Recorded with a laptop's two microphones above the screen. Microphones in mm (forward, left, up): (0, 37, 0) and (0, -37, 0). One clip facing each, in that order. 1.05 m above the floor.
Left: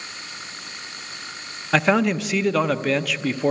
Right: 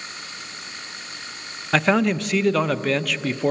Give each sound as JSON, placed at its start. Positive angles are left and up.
{"t": 1.7, "sound": "a man speaking", "side_deg": 5, "distance_m": 0.5}